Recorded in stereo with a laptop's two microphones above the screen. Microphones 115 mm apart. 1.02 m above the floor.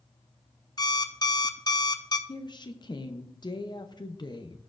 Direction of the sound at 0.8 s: 35° left (ahead or behind).